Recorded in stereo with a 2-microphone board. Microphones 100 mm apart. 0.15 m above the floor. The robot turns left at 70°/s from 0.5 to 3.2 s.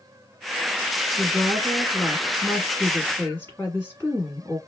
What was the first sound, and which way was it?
A woman speaking, 20° right (ahead or behind).